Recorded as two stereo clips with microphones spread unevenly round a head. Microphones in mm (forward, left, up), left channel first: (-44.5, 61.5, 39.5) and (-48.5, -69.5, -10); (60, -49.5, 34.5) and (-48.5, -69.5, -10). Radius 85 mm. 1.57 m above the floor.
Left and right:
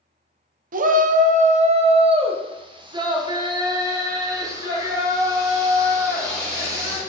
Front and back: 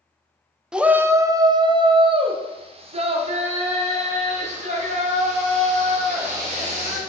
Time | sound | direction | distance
0.7 | a shout | 90° right | 0.8 m